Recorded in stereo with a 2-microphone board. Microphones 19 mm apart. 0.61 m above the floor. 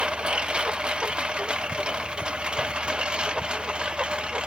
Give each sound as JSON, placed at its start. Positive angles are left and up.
{"t": 0.0, "sound": "a lawn mower", "side_deg": -70}